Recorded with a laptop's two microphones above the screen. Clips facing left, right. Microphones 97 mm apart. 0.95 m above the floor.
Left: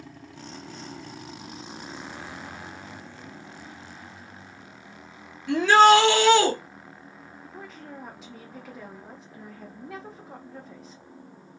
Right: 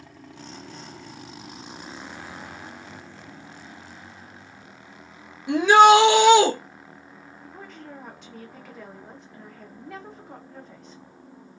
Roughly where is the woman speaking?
Centre.